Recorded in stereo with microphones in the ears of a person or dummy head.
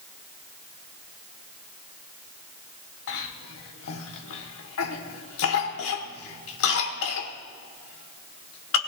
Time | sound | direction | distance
3.1 | a cough | 70° left (ahead or behind) | 1.2 m